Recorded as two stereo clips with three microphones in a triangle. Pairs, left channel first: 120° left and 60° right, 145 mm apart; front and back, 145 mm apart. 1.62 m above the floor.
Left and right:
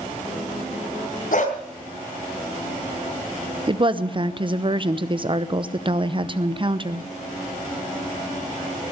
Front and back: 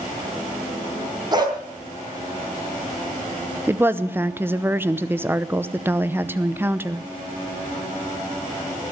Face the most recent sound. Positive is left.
turn(degrees=-105)